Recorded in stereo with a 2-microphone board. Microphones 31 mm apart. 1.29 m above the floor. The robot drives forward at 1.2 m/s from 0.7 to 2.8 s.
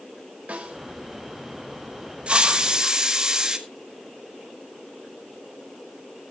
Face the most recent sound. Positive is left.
turn(degrees=-25)  # may be behind; listen again after turning